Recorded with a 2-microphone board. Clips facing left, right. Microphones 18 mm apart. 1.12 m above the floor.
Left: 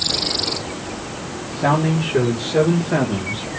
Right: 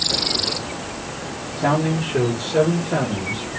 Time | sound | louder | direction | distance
1.6 | a man speaking | left 2 dB | 15° left (ahead or behind) | 1.1 m